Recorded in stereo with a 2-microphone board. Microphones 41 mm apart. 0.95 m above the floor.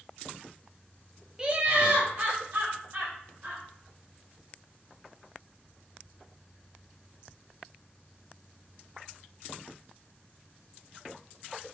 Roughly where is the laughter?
Centre.